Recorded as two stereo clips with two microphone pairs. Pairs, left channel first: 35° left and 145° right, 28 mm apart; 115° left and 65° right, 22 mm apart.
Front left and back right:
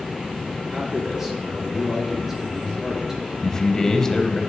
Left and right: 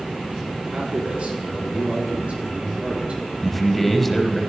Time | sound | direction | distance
0.7 | a man speaking | 70° right | 4 m
3.4 | a man speaking | 45° left | 1.1 m